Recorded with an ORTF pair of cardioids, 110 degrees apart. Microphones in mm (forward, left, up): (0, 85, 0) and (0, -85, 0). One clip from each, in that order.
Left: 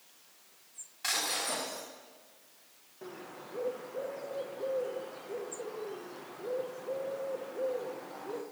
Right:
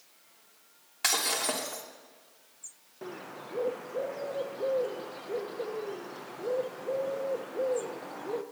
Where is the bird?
25° right, 0.7 m.